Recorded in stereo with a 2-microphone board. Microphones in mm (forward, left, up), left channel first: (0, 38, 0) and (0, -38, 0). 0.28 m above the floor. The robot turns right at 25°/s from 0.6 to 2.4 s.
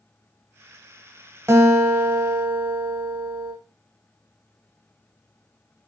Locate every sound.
1.5 s a guitar: 40° right (ahead or behind), 0.9 m; by 3.5 s 30° right (ahead or behind), 0.9 m